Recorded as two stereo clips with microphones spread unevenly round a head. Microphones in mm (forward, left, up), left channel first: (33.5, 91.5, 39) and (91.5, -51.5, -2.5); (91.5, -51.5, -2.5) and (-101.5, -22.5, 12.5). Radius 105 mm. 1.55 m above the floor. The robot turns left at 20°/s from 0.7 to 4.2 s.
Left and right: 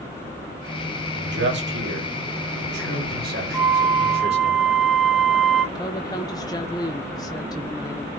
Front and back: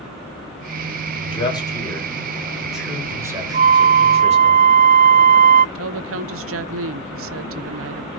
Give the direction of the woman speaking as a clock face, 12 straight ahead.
6 o'clock.